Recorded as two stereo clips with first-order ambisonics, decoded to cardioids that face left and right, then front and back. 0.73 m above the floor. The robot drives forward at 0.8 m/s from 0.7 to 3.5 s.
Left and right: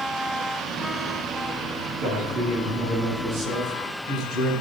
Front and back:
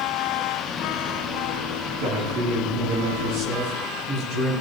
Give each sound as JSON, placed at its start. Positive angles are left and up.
{"t": 2.0, "sound": "a man speaking", "azimuth_deg": -155, "distance_m": 6.0}